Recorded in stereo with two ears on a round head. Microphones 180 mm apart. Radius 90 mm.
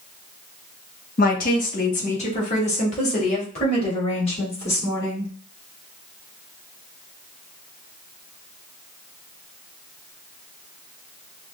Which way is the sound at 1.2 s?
45° left (ahead or behind).